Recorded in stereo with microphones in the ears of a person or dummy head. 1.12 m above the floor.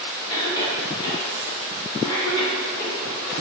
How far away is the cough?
About 0.8 m.